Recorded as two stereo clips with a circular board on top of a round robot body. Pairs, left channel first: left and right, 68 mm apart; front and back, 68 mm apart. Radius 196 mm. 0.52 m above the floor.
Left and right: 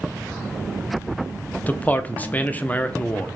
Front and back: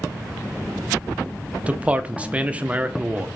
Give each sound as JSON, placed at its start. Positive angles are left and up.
{"t": 1.7, "sound": "a man speaking", "azimuth_deg": 130, "distance_m": 0.6}